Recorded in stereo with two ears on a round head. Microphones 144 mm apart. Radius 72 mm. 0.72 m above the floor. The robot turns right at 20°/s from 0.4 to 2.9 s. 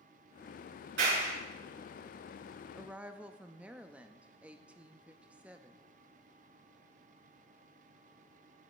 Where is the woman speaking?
5° right (ahead or behind), 0.6 m; by 5.8 s 10° right (ahead or behind), 0.6 m.